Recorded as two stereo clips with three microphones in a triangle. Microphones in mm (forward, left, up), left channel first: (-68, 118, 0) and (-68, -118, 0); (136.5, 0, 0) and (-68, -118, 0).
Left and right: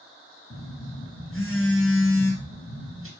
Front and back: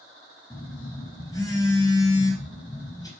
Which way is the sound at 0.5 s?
105° left.